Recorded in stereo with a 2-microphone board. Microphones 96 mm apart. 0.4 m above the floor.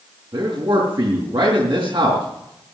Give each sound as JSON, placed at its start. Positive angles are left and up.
{"t": 0.3, "sound": "a man speaking", "side_deg": -60, "distance_m": 4.5}